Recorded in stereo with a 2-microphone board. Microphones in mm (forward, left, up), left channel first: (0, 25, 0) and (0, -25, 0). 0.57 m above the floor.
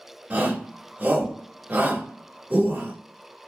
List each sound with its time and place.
0.3 s a shout: 35° right (ahead or behind), 1.0 m